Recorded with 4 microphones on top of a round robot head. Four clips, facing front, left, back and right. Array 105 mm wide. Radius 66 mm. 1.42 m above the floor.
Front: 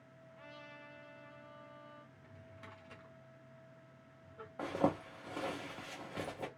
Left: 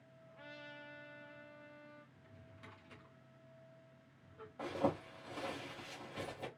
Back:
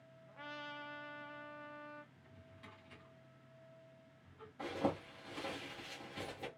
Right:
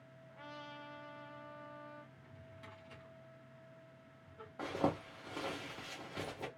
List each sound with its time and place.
0.3 s a trumpet: 170° right, 0.8 m
2.1 s a drawer: straight ahead, 1.9 m
4.6 s a zipper: 25° right, 1.8 m